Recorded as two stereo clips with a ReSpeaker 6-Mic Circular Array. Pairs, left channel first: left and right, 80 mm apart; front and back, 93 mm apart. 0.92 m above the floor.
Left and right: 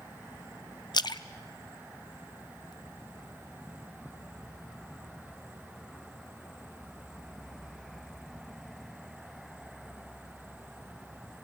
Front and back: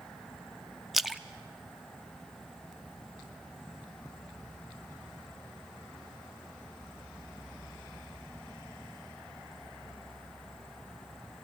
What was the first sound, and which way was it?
A splash, 90° left.